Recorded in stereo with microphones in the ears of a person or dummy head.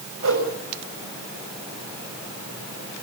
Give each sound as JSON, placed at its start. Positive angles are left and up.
{"t": 0.2, "sound": "a whoosh", "side_deg": -75, "distance_m": 7.0}